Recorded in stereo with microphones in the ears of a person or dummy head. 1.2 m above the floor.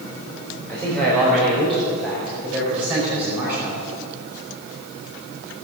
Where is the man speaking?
10° left (ahead or behind), 4 m; by 3.8 s 10° right (ahead or behind), 5.5 m.